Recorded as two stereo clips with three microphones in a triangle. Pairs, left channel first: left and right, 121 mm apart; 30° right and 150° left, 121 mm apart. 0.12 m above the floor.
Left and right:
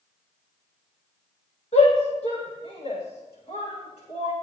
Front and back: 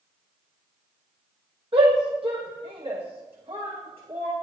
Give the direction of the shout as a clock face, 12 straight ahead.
8 o'clock.